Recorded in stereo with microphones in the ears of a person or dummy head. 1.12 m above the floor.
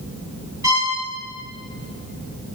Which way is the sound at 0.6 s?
15° right (ahead or behind).